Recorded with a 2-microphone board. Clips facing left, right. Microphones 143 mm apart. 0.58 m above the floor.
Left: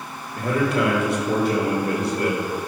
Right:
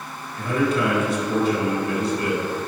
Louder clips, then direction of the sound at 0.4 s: Even; 65° left (ahead or behind).